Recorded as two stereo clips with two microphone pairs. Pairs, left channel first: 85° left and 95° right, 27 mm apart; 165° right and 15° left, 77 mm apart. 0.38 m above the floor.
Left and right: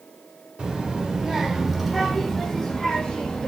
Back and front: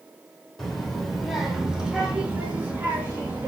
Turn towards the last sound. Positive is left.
turn(degrees=65)